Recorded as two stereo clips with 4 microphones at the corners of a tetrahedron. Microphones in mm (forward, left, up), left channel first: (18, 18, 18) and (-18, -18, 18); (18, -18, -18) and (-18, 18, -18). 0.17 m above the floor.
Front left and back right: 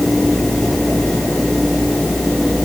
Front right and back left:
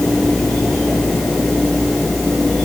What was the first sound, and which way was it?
Only background noise.